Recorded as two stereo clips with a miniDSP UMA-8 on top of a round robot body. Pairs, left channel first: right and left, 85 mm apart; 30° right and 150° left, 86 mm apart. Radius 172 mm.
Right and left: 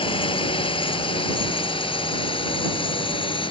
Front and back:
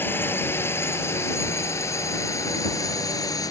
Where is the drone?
95° right; by 3.5 s 75° right.